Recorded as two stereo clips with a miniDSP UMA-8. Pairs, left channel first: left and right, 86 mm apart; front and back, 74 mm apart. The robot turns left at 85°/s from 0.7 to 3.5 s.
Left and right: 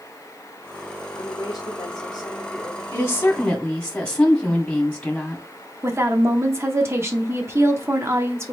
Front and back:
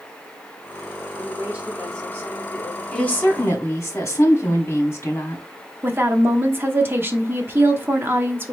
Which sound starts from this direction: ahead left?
A woman speaking, at 2.9 s.